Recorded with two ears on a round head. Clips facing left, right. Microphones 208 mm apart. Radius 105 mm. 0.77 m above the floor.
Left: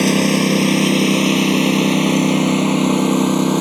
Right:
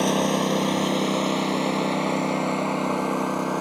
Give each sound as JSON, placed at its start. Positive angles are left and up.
{"t": 0.0, "sound": "a lawn mower", "side_deg": 40}